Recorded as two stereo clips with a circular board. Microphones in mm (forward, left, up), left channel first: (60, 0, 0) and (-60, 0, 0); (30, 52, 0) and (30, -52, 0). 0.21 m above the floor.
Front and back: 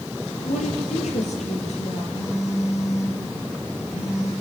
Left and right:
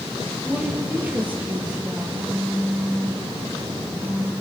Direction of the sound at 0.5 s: 15° right.